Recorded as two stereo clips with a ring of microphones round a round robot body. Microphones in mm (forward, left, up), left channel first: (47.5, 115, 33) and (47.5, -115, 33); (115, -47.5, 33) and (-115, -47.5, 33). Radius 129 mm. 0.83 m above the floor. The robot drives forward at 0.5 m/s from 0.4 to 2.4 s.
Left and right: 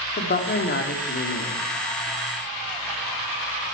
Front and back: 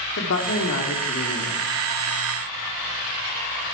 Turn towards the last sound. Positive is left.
turn(degrees=80)